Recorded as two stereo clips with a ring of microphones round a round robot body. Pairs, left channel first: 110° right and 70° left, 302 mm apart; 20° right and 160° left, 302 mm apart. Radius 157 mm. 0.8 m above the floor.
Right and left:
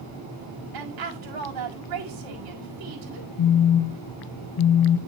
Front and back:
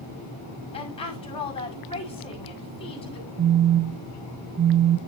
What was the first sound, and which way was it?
A woman speaking, 50° left.